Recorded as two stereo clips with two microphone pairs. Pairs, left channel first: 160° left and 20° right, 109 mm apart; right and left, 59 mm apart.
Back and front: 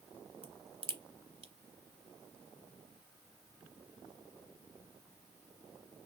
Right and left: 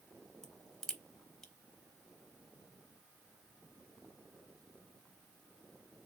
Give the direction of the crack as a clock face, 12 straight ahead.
12 o'clock.